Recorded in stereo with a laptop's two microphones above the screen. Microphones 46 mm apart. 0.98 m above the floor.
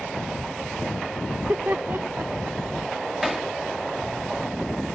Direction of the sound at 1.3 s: 50° right (ahead or behind).